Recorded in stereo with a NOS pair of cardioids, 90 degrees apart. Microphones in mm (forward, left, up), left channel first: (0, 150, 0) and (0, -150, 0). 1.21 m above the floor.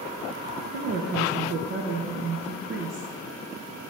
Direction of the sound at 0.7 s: 45° right.